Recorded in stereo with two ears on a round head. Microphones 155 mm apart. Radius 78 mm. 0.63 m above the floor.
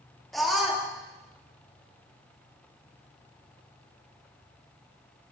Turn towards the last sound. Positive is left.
turn(degrees=0)  # may be behind; listen again after turning